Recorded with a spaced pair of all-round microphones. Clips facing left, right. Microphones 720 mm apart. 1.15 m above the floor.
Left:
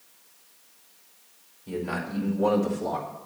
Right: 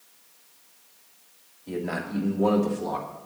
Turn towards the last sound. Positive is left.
turn(degrees=10)  # may be behind; listen again after turning